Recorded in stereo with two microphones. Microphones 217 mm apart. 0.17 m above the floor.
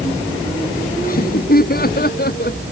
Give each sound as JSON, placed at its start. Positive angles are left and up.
{"t": 1.0, "sound": "laughter", "side_deg": 40}